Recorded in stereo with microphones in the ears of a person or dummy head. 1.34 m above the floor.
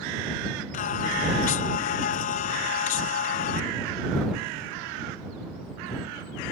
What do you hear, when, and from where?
0.7 s singing: 40° left (ahead or behind)